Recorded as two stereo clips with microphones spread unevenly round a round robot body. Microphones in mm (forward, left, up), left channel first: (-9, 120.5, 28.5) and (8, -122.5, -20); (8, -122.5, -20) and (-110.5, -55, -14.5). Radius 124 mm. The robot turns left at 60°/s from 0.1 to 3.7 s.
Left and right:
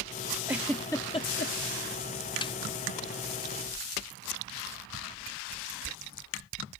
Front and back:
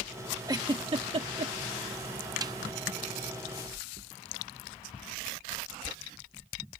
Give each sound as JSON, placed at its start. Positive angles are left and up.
{"t": 0.5, "sound": "a giggle", "azimuth_deg": -155}
{"t": 2.4, "sound": "a snare drum", "azimuth_deg": 165}